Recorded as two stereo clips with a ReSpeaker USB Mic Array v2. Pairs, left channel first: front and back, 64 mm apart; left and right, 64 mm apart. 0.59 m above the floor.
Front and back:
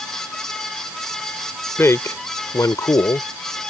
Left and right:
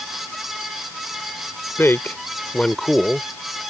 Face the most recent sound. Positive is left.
turn(degrees=-10)